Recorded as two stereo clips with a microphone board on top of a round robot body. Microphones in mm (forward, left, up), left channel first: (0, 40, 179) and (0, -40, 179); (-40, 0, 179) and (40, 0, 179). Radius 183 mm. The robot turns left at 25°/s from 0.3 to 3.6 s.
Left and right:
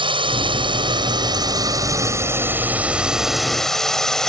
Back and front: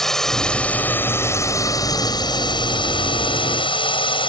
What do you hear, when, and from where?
0.0 s a drone: 95° right; by 4.3 s 175° left